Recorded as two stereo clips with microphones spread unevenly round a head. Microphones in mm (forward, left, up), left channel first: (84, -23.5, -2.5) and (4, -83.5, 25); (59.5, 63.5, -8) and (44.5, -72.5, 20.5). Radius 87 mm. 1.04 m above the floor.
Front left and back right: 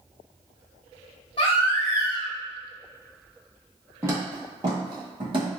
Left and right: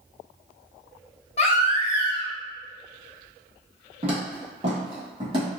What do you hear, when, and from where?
1.4 s a baby crying: 65° left, 0.6 m
4.0 s footsteps: 100° right, 1.7 m; by 5.5 s 140° right, 1.9 m